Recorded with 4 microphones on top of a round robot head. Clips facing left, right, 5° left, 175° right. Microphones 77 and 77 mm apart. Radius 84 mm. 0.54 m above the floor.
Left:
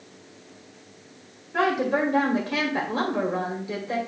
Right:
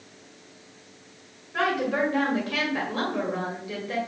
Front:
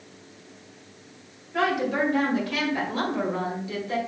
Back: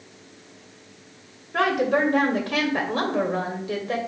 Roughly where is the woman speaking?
Behind left.